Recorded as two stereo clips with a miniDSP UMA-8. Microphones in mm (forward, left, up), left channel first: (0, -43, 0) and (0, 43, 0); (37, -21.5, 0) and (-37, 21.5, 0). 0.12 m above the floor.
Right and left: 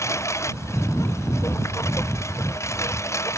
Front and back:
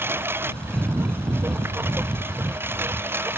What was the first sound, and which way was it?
A lawn mower, 145° right.